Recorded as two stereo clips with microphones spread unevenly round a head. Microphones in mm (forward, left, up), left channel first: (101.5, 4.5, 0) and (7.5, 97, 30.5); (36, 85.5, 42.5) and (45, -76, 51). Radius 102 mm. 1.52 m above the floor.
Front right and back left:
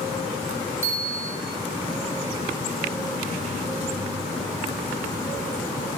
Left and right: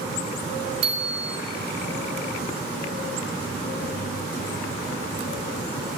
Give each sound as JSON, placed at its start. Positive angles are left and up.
{"t": 0.8, "sound": "a bicycle bell", "azimuth_deg": -150, "distance_m": 4.0}